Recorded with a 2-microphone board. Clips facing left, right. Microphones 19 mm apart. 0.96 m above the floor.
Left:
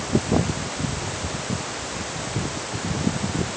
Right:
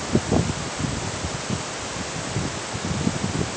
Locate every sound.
Only background noise.